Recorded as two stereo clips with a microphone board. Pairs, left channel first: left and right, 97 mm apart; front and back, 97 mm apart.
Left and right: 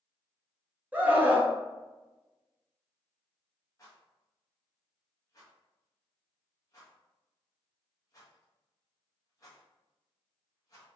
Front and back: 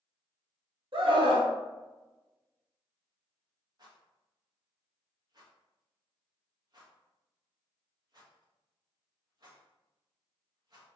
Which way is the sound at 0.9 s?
165° right.